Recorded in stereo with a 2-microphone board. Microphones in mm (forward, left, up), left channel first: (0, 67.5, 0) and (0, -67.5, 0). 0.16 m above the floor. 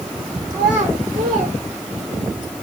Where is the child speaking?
60° right (ahead or behind), 9.5 m; by 2.3 s 70° right (ahead or behind), 9.5 m.